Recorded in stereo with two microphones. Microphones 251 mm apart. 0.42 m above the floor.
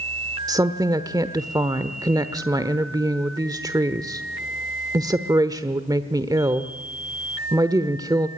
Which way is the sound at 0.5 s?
15° right (ahead or behind).